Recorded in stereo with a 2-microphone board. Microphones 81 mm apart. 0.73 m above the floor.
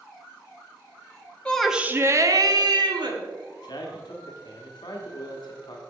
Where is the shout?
15° left (ahead or behind), 0.6 m; by 3.2 s 65° right (ahead or behind), 1.5 m.